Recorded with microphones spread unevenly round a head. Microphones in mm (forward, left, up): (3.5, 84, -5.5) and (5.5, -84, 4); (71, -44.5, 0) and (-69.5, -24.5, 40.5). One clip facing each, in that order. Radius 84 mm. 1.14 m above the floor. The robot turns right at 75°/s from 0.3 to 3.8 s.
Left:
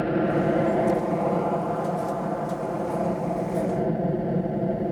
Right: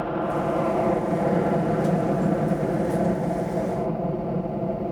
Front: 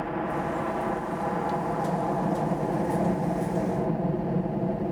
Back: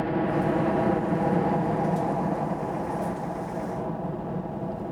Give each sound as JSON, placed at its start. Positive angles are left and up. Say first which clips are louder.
{"t": 0.0, "sound": "a helicopter", "louder": "left 3 dB, back 4 dB", "azimuth_deg": 125}